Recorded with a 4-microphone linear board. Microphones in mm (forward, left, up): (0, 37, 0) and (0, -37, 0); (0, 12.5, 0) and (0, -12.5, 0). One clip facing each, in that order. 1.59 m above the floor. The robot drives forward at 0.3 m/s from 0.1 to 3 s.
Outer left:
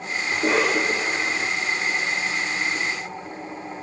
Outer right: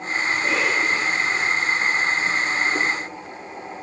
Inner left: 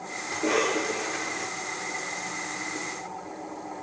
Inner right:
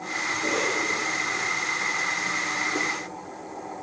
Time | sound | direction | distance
0.3 | a cough | 55° left (ahead or behind) | 6 m